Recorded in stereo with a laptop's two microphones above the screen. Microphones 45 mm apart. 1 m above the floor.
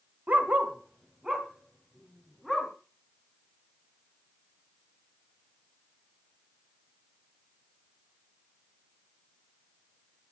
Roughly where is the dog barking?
Right.